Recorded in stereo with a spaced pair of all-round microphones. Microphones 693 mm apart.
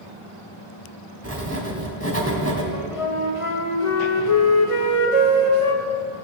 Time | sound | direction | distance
1.2 | writing | 20° right (ahead or behind) | 2.5 m
2.7 | a flute | 50° left (ahead or behind) | 1.4 m